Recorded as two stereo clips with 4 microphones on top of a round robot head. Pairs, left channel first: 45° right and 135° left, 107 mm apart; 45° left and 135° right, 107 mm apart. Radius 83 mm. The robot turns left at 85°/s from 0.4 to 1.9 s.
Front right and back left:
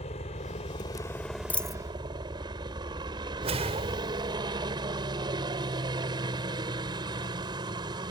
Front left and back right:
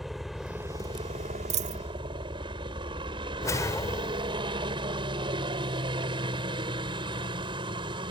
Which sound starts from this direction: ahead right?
A helicopter, at 0.0 s.